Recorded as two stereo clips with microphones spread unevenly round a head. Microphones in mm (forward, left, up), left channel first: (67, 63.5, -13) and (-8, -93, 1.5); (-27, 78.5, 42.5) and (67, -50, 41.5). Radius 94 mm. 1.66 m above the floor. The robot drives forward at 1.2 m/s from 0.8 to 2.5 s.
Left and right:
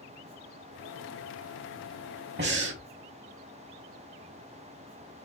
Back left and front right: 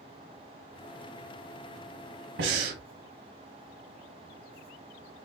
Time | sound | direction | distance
2.4 | breathing | 80° right | 1.1 m